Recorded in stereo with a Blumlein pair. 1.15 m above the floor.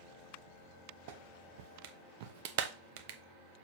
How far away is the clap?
About 0.8 m.